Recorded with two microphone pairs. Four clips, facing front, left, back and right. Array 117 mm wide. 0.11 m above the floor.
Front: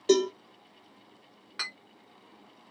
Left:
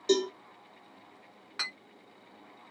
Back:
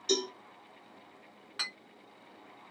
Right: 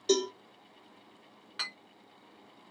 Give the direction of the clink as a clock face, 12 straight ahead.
10 o'clock.